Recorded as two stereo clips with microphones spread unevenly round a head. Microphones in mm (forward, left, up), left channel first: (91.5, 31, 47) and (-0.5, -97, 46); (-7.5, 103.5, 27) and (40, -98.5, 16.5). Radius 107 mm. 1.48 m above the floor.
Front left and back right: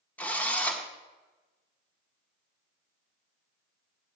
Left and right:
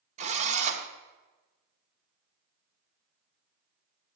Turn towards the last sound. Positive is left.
turn(degrees=-25)